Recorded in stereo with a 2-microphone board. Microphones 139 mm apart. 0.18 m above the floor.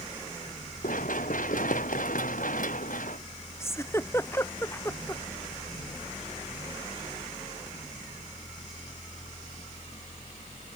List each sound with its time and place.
0.8 s running footsteps: 75° left (ahead or behind); by 3.2 s 70° left (ahead or behind)
3.6 s a giggle: 20° left (ahead or behind)